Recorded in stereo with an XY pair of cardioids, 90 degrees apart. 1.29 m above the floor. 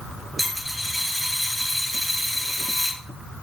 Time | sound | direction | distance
0.4 | a dropped coin | straight ahead | 4 m